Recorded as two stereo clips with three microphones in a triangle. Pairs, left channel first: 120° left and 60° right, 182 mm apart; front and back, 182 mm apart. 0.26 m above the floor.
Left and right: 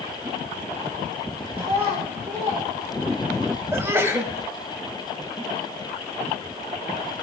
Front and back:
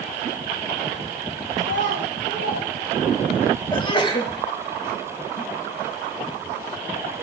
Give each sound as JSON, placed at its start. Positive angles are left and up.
{"t": 1.6, "sound": "a child speaking", "azimuth_deg": 0, "distance_m": 8.5}
{"t": 3.7, "sound": "a sneeze", "azimuth_deg": 0, "distance_m": 1.0}